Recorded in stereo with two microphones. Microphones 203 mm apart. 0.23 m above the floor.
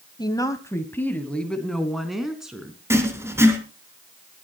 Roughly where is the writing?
Centre.